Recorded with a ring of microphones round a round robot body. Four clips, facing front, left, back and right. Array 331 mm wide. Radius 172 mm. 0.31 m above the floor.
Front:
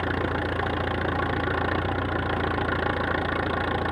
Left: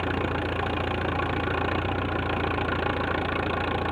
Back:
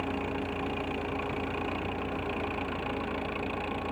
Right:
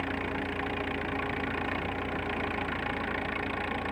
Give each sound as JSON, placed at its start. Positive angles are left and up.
{"t": 0.0, "sound": "an engine running", "azimuth_deg": 40}